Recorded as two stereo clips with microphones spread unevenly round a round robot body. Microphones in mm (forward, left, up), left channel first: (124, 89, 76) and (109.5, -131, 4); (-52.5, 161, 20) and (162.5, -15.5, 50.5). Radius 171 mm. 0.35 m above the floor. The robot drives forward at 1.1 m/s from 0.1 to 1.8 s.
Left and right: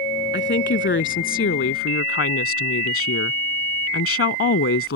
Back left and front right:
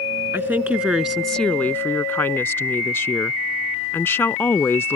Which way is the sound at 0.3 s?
45° left.